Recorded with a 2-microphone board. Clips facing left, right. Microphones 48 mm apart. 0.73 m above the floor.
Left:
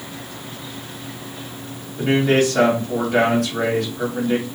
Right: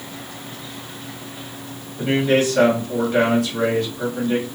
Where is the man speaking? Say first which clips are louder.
Left 1 dB; 60° left (ahead or behind), 1.9 m.